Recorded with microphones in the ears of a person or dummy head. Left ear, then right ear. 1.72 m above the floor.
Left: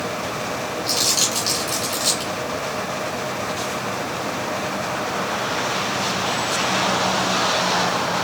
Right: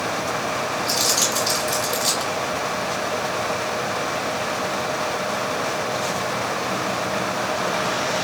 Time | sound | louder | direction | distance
0.9 | crumpling | left 2 dB | 15° left (ahead or behind) | 1.7 m